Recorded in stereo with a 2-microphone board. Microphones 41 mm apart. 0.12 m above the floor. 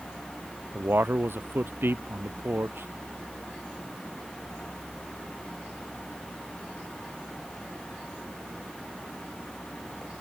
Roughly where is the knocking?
I don't hear knocking.